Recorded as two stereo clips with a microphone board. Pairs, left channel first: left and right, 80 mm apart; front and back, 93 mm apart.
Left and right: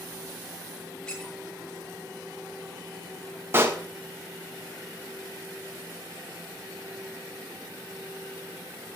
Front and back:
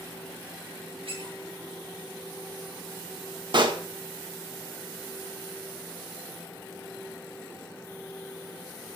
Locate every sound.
1.1 s a squeak: 170° left, 9 m
3.5 s a pop: 150° right, 1.9 m